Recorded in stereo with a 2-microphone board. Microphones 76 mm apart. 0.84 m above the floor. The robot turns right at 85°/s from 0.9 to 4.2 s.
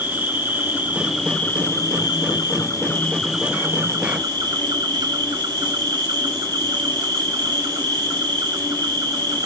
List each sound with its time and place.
0.0 s an insect: 25° right, 1.0 m; by 9.5 s 105° right, 1.0 m